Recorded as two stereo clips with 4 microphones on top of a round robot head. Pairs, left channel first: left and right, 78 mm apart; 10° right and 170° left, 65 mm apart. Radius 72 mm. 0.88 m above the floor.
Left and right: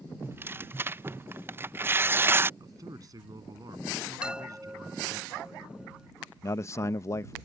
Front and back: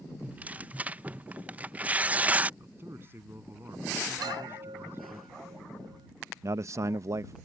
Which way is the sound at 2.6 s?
130° right.